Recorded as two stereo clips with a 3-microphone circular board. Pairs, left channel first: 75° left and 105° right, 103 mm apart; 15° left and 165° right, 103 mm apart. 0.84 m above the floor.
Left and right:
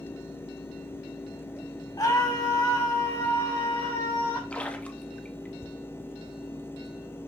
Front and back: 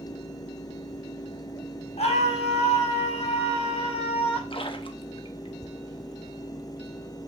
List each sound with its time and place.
2.0 s a scream: 20° left, 5 m
4.5 s a splash: straight ahead, 1.1 m